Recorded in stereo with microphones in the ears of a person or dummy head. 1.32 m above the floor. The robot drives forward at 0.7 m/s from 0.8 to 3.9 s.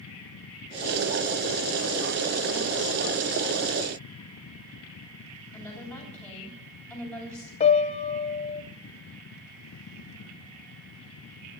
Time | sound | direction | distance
5.5 | a woman speaking | centre (ahead or behind) | 9 m
7.6 | a piano | 25° left (ahead or behind) | 0.7 m